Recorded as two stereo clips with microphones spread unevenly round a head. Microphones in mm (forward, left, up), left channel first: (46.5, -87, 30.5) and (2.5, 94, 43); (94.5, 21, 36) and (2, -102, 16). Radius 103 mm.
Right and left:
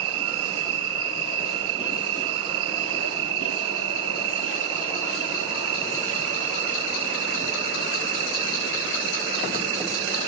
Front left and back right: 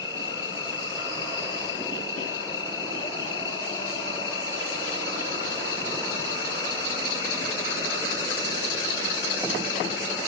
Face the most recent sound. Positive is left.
turn(degrees=125)